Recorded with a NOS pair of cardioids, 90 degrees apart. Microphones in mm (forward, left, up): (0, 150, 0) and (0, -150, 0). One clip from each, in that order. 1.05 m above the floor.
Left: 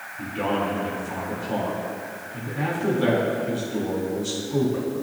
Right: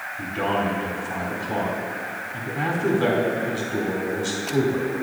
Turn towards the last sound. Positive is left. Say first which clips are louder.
# right 1 dB
turn(degrees=-25)